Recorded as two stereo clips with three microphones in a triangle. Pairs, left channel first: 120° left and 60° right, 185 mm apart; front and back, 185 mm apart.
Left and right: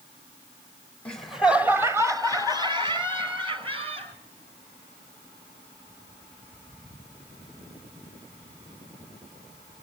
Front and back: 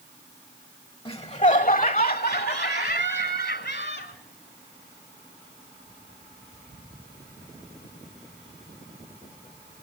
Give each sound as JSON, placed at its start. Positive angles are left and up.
{"t": 1.1, "sound": "laughter", "azimuth_deg": 40, "distance_m": 1.1}